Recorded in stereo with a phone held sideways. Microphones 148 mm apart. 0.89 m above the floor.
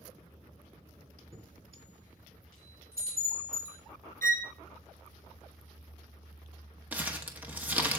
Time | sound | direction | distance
1.3 | a chime | 80° right | 3.5 m
4.2 | a violin | 65° right (ahead or behind) | 0.5 m
6.9 | crumpling | 10° right (ahead or behind) | 1.0 m